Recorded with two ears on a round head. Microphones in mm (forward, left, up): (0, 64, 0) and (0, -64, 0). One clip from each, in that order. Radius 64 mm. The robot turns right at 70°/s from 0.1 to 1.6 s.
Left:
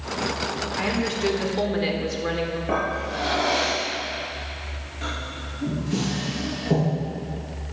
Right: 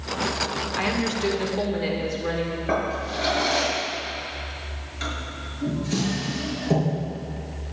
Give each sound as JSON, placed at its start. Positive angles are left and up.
{"t": 0.8, "sound": "a woman speaking", "azimuth_deg": -35, "distance_m": 1.8}
{"t": 2.7, "sound": "a drawer", "side_deg": -90, "distance_m": 5.0}